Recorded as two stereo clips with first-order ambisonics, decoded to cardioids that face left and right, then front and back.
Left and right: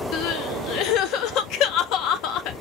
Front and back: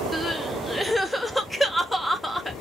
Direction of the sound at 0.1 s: 85° left.